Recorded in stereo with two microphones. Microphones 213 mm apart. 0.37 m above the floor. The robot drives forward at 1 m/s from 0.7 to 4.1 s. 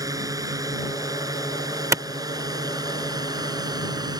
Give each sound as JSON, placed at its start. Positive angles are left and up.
{"t": 0.0, "sound": "a drone", "side_deg": -15}
{"t": 1.9, "sound": "a clap", "side_deg": -15}